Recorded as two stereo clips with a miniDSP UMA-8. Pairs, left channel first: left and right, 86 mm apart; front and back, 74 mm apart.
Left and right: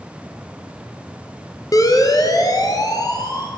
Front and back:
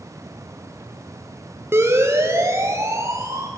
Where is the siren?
130° left, 2.5 m.